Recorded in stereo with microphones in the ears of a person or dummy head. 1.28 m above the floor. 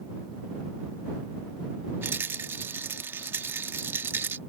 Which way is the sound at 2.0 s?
15° right (ahead or behind).